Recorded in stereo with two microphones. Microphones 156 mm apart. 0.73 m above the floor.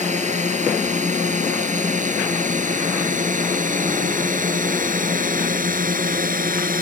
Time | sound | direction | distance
0.0 | a drone | 50° right (ahead or behind) | ?